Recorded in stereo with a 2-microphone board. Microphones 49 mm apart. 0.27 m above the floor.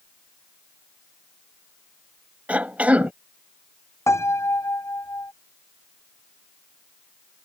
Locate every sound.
2.5 s a cough: 30° right (ahead or behind)
4.1 s a piano: 80° left